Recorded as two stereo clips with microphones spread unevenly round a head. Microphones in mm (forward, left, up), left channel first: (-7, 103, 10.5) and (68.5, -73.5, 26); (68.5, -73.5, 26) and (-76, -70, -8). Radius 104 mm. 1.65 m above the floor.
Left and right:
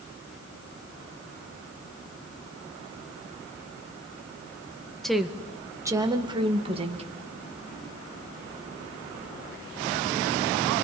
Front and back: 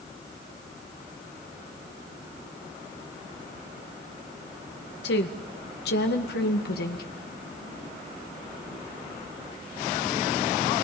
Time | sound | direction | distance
5.0 | a woman speaking | 25° left | 1.7 m